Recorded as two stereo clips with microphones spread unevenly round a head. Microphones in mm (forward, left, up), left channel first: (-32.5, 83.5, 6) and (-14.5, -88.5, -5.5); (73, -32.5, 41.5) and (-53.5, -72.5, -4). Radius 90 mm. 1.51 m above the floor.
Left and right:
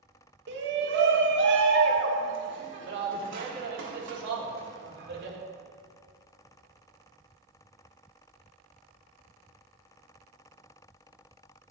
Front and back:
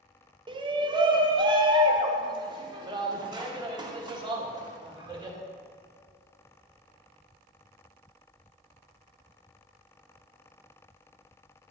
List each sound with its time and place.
0.5 s a shout: 105° right, 1.8 m; by 5.4 s 100° right, 4.5 m